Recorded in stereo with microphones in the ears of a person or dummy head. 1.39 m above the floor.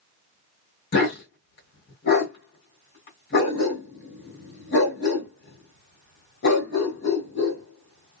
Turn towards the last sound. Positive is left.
turn(degrees=50)  # may be behind; listen again after turning